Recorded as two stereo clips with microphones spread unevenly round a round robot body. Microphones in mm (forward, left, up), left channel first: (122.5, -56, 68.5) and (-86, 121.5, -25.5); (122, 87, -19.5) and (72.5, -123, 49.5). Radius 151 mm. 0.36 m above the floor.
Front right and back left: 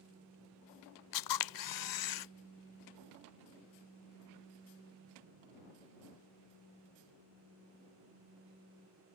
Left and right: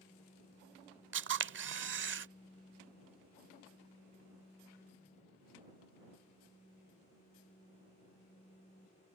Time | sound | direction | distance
1.1 | a camera shutter | 65° right | ?